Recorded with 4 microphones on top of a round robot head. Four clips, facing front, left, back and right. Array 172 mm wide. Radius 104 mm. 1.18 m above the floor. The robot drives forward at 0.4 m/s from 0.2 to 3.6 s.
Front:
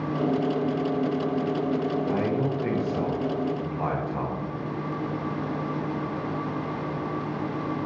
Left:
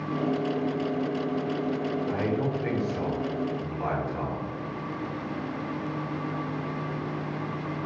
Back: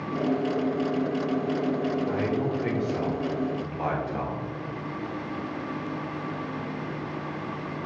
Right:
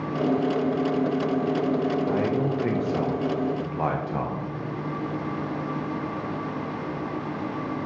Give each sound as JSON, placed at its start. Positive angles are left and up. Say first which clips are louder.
{"t": 2.1, "sound": "a man speaking", "louder": "right 3 dB, front 1 dB", "azimuth_deg": -65, "distance_m": 1.4}